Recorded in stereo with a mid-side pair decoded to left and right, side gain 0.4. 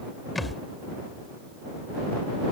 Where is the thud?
20° left.